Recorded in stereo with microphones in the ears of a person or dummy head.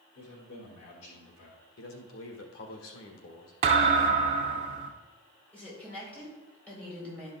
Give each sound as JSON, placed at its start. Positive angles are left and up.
{"t": 0.1, "sound": "a man speaking", "side_deg": 85, "distance_m": 3.0}
{"t": 1.8, "sound": "a man speaking", "side_deg": 65, "distance_m": 1.6}
{"t": 3.6, "sound": "a thud", "side_deg": -30, "distance_m": 0.9}
{"t": 5.5, "sound": "a woman speaking", "side_deg": 5, "distance_m": 4.5}